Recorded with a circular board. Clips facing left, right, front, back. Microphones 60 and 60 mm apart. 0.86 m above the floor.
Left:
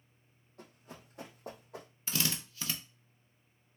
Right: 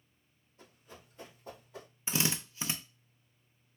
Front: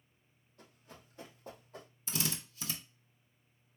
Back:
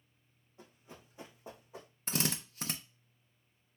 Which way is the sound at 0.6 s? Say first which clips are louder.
Left 3 dB, back 2 dB; 105° left.